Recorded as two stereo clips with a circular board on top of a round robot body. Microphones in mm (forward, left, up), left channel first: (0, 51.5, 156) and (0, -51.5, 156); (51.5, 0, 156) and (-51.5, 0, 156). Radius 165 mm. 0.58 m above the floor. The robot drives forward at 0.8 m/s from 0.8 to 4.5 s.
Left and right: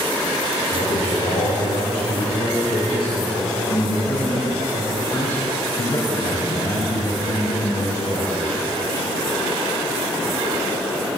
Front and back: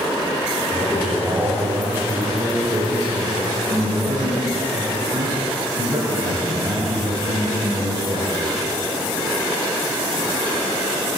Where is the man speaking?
95° left, 3 m; by 8.3 s 135° left, 4.5 m.